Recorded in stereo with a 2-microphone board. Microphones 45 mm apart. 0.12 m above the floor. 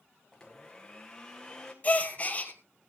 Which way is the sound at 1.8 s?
30° left (ahead or behind).